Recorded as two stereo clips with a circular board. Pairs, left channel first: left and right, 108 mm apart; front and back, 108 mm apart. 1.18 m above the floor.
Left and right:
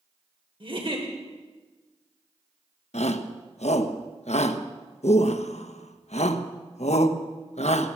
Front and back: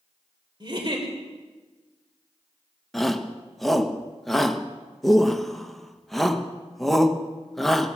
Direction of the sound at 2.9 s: 90° left.